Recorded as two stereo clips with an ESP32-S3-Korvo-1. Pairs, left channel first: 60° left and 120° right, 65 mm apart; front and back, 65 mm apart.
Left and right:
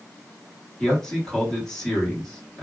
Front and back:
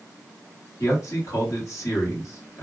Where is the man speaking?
20° right, 1.9 m.